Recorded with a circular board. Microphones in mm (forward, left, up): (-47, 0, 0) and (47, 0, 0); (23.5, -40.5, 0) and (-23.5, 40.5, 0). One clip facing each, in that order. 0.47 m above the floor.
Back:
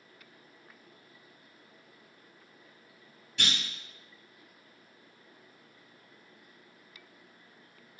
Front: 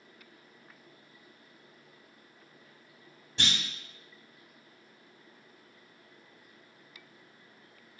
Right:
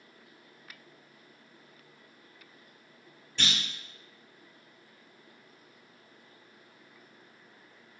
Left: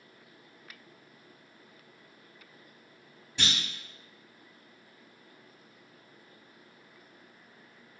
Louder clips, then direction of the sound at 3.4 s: Front 1 dB, even; 45° left.